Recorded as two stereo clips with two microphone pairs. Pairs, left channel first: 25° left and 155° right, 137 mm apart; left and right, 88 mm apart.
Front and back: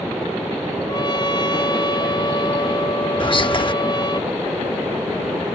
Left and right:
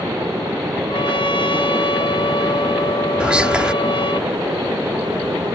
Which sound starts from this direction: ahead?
Whispering, at 3.2 s.